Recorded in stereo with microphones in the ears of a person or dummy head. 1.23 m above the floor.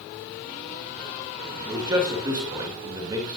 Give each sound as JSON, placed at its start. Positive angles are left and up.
{"t": 1.7, "sound": "a man speaking", "side_deg": -15, "distance_m": 2.0}